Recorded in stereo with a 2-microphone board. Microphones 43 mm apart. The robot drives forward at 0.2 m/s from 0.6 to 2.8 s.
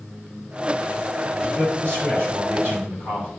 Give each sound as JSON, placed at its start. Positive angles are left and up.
{"t": 1.4, "sound": "a man speaking", "side_deg": -55, "distance_m": 3.0}